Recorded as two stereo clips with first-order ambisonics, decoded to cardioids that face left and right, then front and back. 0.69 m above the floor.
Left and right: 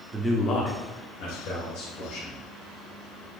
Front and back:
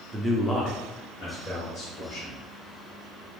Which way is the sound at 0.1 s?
135° right.